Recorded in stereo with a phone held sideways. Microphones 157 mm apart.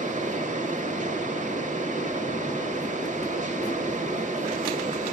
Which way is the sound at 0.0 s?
50° right (ahead or behind).